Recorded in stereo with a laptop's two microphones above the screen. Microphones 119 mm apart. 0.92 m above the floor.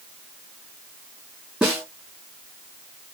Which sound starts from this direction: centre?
A snare drum, at 1.6 s.